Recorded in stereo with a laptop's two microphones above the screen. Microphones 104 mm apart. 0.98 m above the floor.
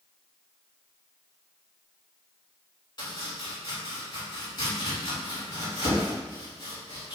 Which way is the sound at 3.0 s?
45° left (ahead or behind).